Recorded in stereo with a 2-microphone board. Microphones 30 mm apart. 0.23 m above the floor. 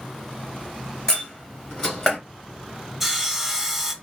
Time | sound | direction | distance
1.1 | a door slam | 25° left (ahead or behind) | 2.5 m
3.0 | sawing | 5° right (ahead or behind) | 0.9 m